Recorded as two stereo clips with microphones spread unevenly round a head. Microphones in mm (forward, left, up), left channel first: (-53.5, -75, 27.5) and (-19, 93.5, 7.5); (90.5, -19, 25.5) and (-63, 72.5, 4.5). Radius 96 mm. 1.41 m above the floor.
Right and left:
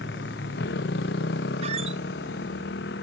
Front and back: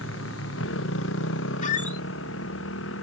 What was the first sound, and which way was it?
A motorcycle, 60° right.